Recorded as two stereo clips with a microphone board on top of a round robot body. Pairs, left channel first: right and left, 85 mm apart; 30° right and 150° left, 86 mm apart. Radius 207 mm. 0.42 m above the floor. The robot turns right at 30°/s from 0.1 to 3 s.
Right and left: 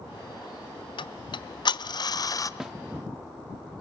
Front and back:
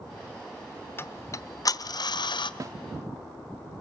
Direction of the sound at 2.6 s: 175° left.